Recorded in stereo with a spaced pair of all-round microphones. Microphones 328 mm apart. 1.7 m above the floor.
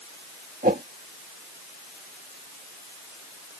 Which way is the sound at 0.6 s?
25° right (ahead or behind).